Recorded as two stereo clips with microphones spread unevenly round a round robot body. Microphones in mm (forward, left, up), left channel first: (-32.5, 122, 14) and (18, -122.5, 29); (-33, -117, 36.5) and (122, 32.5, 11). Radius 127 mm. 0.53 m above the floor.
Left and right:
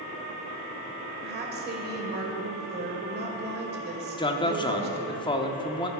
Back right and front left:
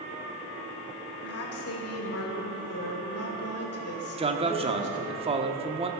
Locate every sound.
1.2 s a woman speaking: 130° right, 2 m
4.2 s a man speaking: 55° left, 0.9 m